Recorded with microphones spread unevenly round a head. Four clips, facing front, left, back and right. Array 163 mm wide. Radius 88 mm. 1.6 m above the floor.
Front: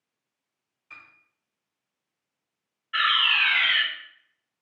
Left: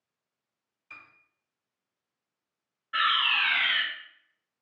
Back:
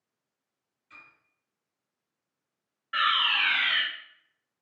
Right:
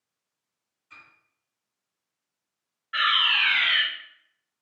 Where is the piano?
65° left, 1.3 m.